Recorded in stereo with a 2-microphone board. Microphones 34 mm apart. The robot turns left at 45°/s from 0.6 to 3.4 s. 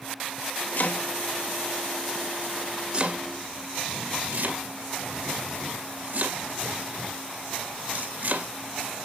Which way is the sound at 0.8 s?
65° left (ahead or behind).